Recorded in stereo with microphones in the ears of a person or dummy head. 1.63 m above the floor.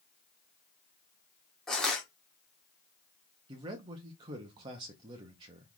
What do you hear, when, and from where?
1.7 s crushing: centre (ahead or behind), 0.9 m
3.5 s a man speaking: 20° right (ahead or behind), 0.6 m